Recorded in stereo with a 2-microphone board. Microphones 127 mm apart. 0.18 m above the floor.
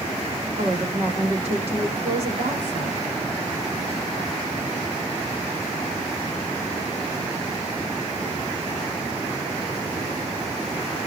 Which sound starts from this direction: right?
A woman speaking, at 0.6 s.